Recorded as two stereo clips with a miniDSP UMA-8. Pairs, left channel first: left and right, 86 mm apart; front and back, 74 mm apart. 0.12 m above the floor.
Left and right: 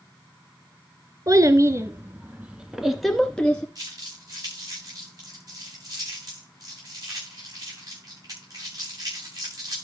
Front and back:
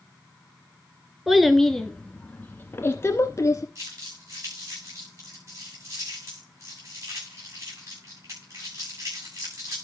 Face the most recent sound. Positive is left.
turn(degrees=-135)